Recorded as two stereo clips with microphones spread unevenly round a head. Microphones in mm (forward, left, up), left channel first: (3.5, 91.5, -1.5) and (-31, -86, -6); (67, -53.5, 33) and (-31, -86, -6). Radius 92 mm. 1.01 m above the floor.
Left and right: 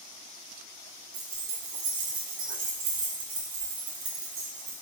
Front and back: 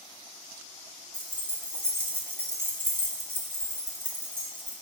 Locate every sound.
1.1 s keys jangling: 95° right, 0.9 m